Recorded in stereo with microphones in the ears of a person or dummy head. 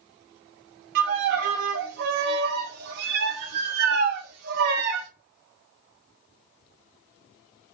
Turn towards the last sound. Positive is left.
turn(degrees=-50)  # may be behind; listen again after turning